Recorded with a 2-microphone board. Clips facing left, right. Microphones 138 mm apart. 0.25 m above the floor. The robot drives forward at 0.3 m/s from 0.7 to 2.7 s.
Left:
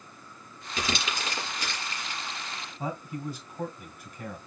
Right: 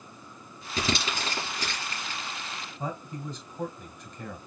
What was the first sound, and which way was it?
Crumpling, 35° right (ahead or behind).